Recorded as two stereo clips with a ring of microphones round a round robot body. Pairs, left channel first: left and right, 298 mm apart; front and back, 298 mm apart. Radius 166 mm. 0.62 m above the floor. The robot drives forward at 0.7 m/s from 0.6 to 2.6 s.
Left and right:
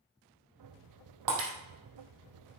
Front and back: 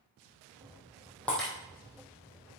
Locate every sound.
1.3 s breaking glass: 85° right, 3 m; by 1.5 s 90° right, 2.5 m